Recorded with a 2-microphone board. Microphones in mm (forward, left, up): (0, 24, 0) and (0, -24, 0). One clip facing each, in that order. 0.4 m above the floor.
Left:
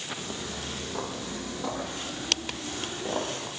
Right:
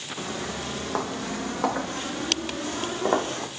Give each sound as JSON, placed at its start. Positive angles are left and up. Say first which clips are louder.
{"t": 0.2, "sound": "footsteps", "louder": "right 4 dB", "side_deg": -85, "distance_m": 7.0}